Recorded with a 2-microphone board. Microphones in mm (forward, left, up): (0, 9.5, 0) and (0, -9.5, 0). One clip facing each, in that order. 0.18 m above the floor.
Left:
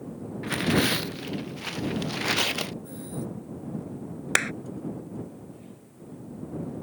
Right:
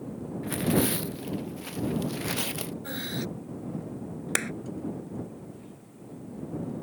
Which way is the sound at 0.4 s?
35° left (ahead or behind).